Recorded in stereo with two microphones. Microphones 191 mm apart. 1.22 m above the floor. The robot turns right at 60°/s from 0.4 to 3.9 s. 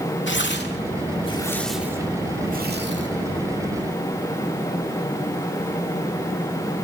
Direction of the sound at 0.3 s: 75° left (ahead or behind).